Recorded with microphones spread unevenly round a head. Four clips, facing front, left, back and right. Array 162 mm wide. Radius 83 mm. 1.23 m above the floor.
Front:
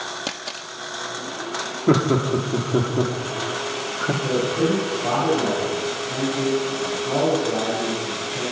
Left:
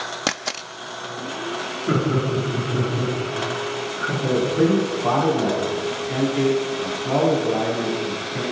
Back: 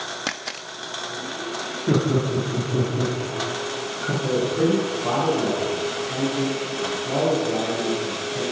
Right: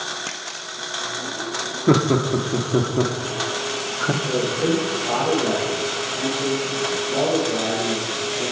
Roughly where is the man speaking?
Ahead left.